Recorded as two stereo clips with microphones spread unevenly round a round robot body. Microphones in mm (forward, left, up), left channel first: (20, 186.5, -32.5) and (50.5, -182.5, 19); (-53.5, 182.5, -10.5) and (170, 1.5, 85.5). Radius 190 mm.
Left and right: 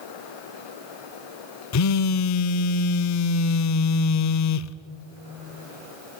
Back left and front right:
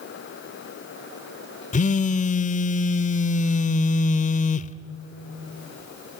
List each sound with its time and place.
1.7 s a phone buzzing: 65° left, 0.5 m